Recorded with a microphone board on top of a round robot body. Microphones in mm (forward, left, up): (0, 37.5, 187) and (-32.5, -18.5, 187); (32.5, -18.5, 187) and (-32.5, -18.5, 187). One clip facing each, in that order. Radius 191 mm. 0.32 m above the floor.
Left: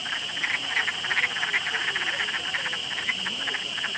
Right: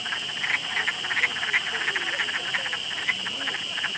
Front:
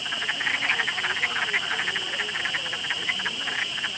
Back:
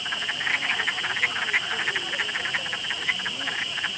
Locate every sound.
Only background noise.